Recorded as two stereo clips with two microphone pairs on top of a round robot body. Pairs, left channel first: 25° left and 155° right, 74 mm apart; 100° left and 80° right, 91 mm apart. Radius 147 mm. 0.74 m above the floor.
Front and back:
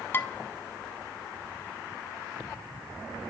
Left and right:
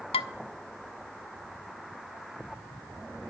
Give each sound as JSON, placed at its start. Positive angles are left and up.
{"t": 0.1, "sound": "dishes clattering", "azimuth_deg": 90, "distance_m": 0.6}